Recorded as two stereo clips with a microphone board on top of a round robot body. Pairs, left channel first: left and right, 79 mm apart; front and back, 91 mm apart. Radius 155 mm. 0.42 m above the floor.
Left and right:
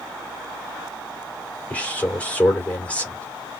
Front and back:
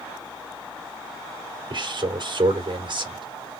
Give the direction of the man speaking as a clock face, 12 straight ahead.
7 o'clock.